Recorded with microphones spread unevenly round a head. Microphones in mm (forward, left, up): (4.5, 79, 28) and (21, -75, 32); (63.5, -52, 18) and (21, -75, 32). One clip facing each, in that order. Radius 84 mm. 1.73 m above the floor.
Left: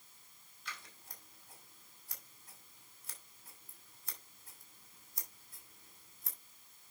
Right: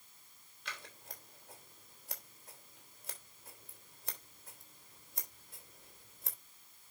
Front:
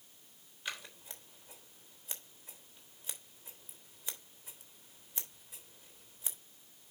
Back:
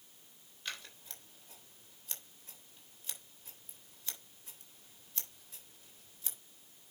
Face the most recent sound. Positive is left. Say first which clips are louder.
# right 2 dB, front 2 dB
turn(degrees=-55)